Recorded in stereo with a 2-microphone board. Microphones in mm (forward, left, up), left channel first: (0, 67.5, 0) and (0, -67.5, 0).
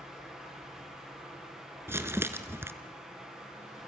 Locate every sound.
0.0 s running water: 5° right (ahead or behind), 7 m
1.9 s crumpling: 20° right (ahead or behind), 1.1 m